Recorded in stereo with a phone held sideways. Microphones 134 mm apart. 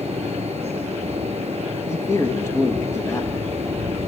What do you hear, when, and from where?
0.0 s a fan: 50° right (ahead or behind), 2.5 m
1.9 s a man speaking: 20° left (ahead or behind), 1.6 m